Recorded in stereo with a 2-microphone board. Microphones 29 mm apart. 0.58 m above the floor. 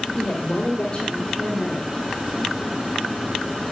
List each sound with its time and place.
0.1 s a woman speaking: 30° left (ahead or behind), 1.5 m; by 1.9 s centre (ahead or behind), 2 m